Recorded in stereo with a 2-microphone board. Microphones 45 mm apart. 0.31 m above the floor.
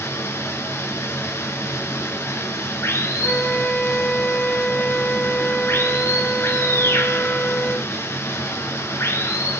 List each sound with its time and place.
0.0 s running water: 70° left (ahead or behind), 1.8 m
3.2 s a flute: 45° left (ahead or behind), 1.3 m